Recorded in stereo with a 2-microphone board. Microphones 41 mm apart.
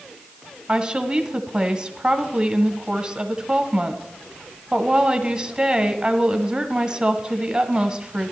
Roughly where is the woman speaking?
Centre.